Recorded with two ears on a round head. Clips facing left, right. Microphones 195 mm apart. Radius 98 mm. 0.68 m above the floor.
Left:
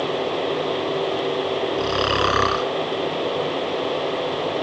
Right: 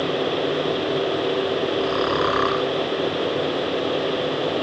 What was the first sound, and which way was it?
Snoring, 40° left (ahead or behind).